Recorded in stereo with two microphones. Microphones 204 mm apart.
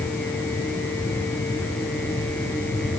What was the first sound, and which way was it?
Only background noise.